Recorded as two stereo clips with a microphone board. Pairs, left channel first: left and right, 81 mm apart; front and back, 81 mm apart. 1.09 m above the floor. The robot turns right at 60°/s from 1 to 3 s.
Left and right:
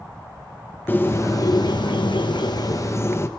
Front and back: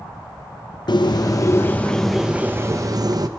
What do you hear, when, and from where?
0.9 s a bird: 25° left, 0.7 m; by 3.3 s 145° left, 0.7 m